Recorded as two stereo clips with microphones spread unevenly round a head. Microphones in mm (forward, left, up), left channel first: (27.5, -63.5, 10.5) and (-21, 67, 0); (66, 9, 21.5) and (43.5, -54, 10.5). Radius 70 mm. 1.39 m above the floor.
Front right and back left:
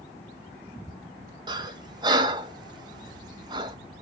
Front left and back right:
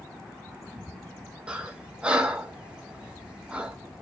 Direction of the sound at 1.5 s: 165° left.